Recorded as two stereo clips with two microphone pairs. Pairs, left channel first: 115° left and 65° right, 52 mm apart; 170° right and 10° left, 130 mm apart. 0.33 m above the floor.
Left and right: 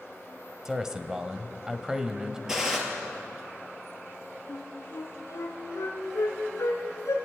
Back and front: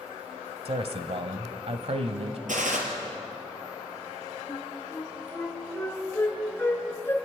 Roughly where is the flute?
Behind left.